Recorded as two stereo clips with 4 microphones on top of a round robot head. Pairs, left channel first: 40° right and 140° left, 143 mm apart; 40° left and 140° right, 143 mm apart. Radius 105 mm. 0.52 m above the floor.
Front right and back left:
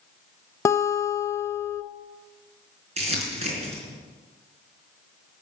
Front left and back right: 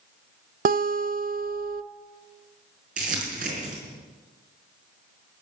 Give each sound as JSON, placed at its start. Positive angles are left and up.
{"t": 0.7, "sound": "a guitar", "azimuth_deg": -115, "distance_m": 0.7}
{"t": 3.0, "sound": "crumpling", "azimuth_deg": -175, "distance_m": 4.5}